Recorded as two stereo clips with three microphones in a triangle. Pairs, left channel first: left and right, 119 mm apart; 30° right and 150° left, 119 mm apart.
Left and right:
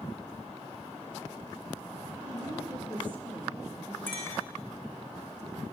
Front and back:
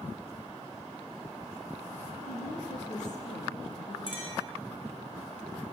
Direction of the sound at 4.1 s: 15° left.